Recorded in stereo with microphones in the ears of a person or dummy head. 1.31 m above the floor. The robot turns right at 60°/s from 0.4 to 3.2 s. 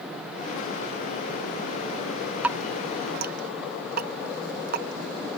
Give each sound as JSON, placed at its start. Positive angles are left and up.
{"t": 2.4, "sound": "dripping", "side_deg": -5}